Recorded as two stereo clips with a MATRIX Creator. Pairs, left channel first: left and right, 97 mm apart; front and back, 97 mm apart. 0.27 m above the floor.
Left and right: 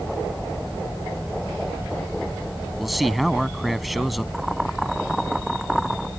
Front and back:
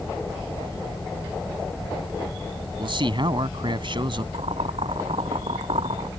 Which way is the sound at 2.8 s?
Straight behind.